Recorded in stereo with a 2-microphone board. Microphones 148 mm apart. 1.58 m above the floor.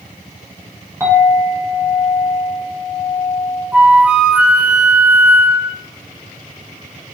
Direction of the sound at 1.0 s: 20° right (ahead or behind).